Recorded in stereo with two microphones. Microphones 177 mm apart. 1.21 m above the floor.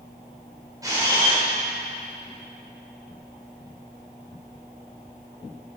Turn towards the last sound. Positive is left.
turn(degrees=-20)  # may be behind; listen again after turning